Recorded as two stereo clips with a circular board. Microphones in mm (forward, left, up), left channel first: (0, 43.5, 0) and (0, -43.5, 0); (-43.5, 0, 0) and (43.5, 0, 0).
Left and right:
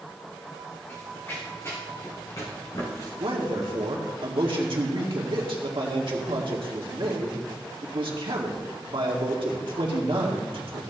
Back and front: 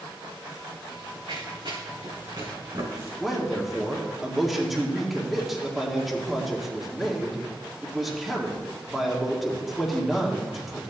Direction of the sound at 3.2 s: 85° right.